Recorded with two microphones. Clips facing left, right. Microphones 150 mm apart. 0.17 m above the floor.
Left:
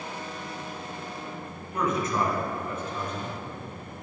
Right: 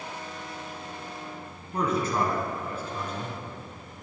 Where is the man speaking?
35° right (ahead or behind), 1.7 m.